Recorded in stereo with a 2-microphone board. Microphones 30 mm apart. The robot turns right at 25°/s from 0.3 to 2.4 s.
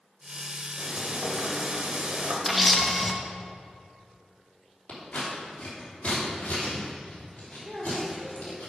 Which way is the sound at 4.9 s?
50° left (ahead or behind).